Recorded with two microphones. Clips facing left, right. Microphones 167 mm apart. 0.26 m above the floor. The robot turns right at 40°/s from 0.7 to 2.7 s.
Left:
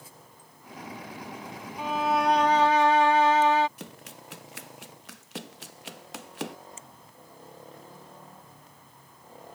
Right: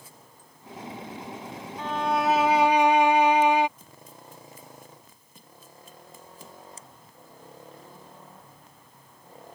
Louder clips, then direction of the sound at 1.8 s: Even; 165° left.